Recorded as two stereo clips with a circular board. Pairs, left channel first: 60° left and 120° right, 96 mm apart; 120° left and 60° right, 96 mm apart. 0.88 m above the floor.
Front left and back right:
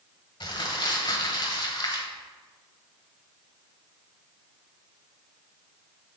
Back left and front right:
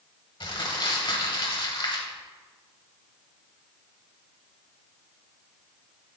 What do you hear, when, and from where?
0.4 s crumpling: 95° left, 1.2 m